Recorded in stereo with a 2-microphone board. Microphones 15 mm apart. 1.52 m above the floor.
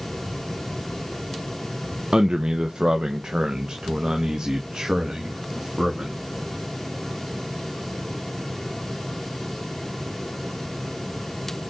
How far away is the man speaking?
About 0.7 m.